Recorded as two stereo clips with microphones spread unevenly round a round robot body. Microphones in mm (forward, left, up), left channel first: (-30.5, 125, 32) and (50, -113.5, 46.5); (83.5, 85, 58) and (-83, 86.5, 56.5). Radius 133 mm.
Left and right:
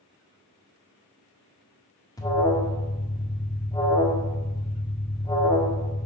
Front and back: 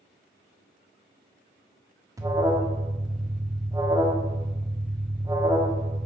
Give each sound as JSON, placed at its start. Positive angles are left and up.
{"t": 2.2, "sound": "an alarm", "azimuth_deg": 150, "distance_m": 1.5}